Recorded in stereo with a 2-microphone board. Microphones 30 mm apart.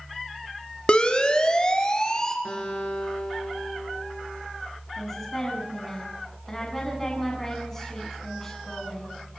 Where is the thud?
I don't hear a thud.